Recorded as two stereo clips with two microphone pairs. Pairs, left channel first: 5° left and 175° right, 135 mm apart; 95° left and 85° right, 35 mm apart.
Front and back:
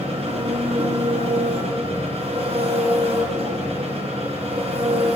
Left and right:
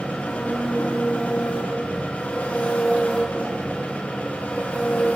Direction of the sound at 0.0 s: 145° left.